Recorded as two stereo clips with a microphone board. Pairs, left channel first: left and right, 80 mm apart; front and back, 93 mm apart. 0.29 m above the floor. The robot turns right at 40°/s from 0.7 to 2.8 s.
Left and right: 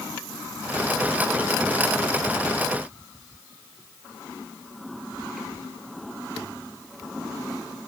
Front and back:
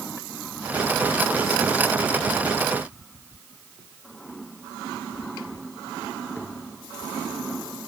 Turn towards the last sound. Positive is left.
No sound to turn to.